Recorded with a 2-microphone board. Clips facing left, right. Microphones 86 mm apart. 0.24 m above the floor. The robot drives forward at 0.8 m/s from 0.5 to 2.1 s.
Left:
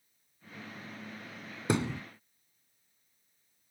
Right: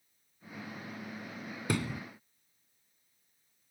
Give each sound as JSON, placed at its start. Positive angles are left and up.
{"t": 1.7, "sound": "a thud", "side_deg": 25}